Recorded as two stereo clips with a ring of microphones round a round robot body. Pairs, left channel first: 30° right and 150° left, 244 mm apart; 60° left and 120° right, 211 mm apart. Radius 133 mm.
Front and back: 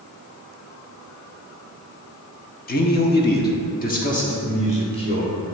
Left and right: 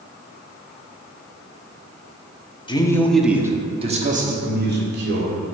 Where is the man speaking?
Straight ahead, 1.0 m; by 5.4 s 100° right, 1.9 m.